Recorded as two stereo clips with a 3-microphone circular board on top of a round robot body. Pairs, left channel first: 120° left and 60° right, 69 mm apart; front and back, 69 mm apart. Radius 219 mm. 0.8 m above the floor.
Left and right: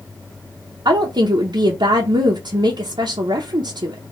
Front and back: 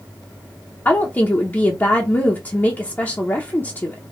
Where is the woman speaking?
65° right, 0.9 m.